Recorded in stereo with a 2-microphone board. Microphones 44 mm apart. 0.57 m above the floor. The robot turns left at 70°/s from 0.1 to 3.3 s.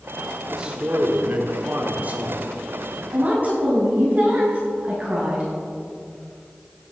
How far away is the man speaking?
About 1.6 m.